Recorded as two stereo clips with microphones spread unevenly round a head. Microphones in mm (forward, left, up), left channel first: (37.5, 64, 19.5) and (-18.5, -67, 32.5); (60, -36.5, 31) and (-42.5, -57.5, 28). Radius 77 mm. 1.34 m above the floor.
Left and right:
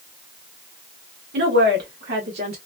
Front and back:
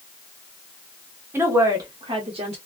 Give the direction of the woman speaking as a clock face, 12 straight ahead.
3 o'clock.